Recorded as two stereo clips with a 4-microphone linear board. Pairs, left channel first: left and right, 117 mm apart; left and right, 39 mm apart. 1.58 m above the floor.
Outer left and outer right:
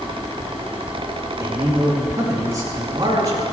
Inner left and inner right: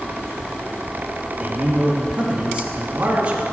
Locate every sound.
1.4 s a man speaking: 30° right (ahead or behind), 3 m